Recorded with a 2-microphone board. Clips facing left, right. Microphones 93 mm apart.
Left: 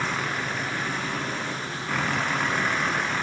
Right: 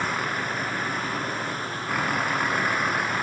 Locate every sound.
0.0 s a vehicle: 5° right (ahead or behind)